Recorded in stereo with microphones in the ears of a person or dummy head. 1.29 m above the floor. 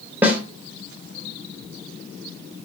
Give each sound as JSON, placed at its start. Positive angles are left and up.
{"t": 0.2, "sound": "a snare drum", "side_deg": -10, "distance_m": 0.5}